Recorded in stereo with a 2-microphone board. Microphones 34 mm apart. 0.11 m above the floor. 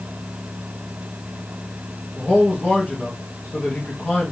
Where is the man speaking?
50° left (ahead or behind), 2 m.